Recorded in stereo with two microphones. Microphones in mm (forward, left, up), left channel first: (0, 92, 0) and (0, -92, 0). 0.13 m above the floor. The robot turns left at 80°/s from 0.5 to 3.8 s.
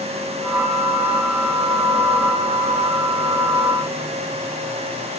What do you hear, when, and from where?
Only background noise.